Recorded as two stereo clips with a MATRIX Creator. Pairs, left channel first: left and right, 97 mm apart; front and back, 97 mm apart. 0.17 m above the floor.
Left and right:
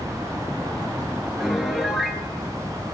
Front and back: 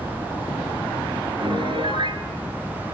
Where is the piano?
175° right, 3.5 m.